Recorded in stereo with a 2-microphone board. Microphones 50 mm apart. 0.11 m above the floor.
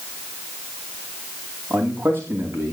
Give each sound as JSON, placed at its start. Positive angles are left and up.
{"t": 1.7, "sound": "a man speaking", "side_deg": -45, "distance_m": 9.5}